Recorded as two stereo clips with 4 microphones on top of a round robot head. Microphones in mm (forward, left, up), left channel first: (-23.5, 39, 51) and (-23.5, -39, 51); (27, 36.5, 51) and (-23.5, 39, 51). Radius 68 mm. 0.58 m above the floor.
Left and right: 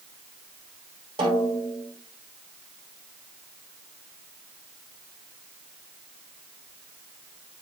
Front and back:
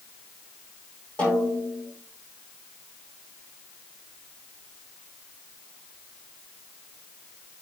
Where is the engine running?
No engine running in this recording.